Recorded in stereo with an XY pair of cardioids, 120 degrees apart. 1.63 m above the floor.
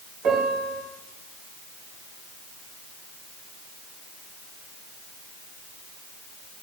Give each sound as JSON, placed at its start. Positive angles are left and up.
{"t": 0.2, "sound": "a piano", "azimuth_deg": -65, "distance_m": 3.0}